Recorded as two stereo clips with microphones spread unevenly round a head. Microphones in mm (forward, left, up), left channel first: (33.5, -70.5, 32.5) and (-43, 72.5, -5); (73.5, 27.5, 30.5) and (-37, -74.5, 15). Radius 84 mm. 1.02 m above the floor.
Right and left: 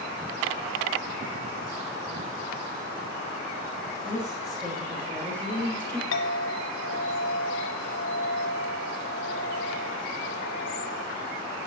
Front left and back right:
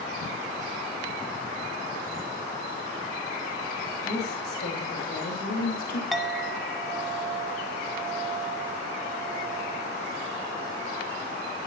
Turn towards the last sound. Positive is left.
turn(degrees=-50)